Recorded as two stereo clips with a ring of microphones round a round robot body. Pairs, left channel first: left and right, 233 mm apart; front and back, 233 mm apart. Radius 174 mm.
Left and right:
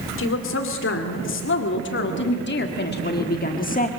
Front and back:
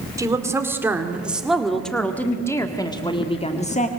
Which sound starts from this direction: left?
A woman speaking, at 0.2 s.